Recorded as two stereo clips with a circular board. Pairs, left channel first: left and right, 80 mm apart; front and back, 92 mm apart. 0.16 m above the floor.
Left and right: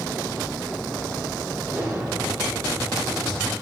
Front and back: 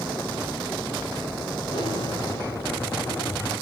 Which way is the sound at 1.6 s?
25° right.